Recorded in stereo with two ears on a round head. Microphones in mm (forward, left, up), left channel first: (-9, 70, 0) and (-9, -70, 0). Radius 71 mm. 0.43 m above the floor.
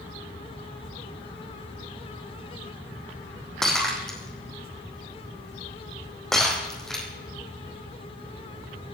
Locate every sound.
3.6 s breaking glass: 5° left (ahead or behind), 5 m